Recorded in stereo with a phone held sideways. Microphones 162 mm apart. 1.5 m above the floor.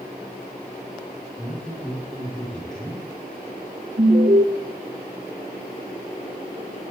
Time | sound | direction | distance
1.4 | a man speaking | 5° left (ahead or behind) | 4.5 m
4.0 | an alarm | 70° right (ahead or behind) | 1.9 m